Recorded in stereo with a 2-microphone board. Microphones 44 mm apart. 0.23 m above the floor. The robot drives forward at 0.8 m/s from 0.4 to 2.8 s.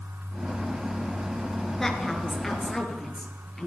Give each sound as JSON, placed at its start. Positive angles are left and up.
{"t": 1.8, "sound": "a woman speaking", "side_deg": 10, "distance_m": 4.0}